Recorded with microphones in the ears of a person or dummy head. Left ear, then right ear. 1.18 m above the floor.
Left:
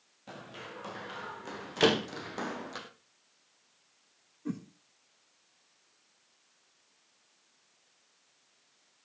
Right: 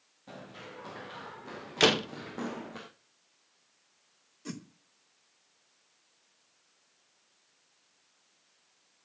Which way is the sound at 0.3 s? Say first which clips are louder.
Left 1 dB; 25° left (ahead or behind).